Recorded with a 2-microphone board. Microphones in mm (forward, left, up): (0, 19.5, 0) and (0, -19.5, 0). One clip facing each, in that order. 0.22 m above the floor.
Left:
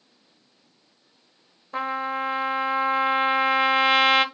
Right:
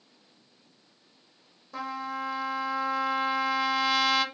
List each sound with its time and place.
1.7 s a trumpet: 45° left (ahead or behind), 0.7 m